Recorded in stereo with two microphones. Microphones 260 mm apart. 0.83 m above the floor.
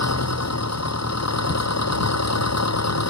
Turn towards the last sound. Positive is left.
turn(degrees=80)